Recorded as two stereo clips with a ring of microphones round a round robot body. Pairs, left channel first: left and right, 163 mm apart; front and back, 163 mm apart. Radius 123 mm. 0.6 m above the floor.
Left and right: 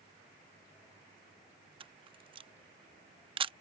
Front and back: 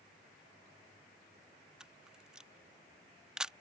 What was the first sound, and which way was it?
A camera shutter, 100° right.